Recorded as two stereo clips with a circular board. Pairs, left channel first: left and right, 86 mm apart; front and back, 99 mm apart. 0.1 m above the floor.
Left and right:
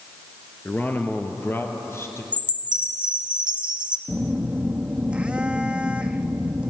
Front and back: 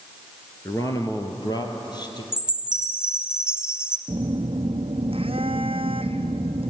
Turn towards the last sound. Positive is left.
turn(degrees=-165)